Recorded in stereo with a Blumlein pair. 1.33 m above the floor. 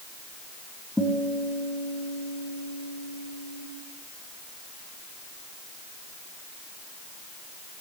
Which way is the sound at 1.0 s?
Straight ahead.